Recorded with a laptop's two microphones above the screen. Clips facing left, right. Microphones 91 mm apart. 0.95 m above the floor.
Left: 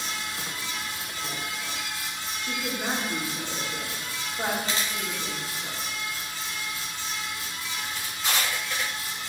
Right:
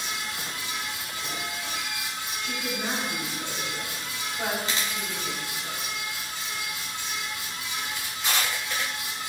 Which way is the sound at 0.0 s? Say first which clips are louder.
Even; 20° right (ahead or behind).